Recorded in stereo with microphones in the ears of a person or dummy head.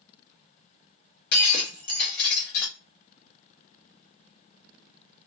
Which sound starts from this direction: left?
Breaking glass, at 1.3 s.